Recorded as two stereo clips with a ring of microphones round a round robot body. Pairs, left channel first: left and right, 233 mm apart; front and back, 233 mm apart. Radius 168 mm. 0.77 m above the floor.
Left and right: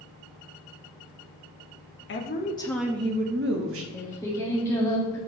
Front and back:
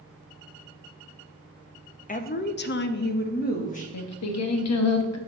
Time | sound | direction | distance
2.1 | a woman speaking | 55° left | 0.7 m
3.9 | singing | 10° left | 0.8 m